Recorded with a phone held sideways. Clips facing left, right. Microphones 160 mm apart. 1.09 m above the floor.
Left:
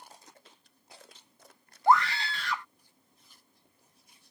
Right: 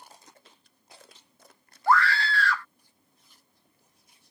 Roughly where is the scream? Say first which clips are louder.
Right 1 dB; centre.